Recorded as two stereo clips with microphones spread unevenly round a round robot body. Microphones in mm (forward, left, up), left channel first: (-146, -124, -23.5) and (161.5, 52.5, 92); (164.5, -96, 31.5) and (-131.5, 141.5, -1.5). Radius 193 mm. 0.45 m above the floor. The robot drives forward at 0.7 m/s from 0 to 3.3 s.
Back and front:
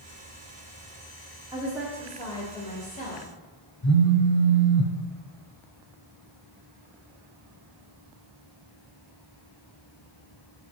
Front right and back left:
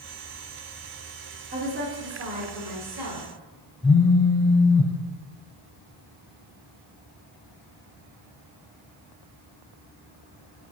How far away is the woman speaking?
About 1.2 m.